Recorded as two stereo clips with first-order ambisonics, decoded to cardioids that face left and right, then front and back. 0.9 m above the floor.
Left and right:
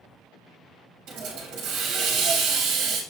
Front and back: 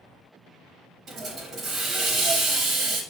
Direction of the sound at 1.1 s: 125° right.